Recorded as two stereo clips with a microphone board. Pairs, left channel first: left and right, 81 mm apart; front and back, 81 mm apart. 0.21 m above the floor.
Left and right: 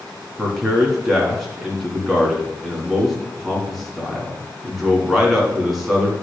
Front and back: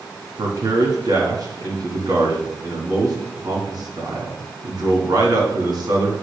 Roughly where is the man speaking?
Behind.